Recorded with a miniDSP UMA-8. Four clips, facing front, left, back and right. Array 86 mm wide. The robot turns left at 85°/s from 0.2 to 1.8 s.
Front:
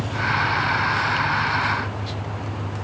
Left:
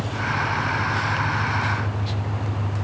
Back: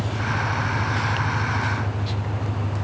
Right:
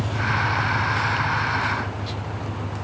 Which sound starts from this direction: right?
An engine running, at 0.0 s.